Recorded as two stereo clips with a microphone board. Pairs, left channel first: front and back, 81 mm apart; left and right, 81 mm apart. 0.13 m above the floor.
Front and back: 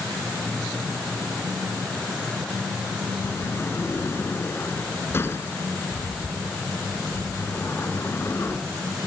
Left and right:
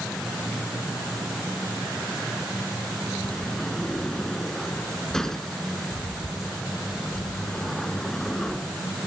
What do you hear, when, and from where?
3.2 s a sliding door: 10° left, 1.6 m